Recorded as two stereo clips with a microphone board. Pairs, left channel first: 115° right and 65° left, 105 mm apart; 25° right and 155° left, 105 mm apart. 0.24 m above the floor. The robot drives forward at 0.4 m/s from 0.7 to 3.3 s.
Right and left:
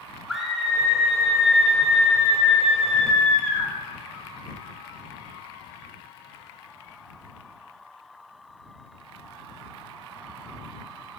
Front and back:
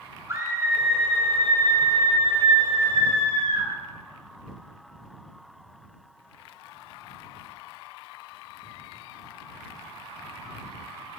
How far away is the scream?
About 1.3 m.